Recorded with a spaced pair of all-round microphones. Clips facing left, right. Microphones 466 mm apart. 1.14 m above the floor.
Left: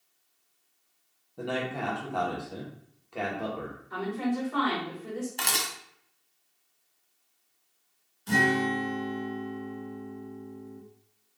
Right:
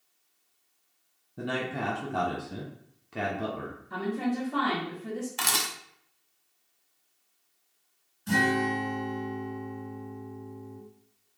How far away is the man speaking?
About 0.6 m.